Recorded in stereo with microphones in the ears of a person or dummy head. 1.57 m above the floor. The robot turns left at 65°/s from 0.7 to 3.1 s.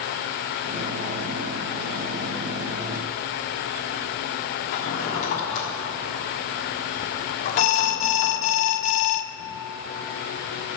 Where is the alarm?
30° left (ahead or behind), 0.6 m.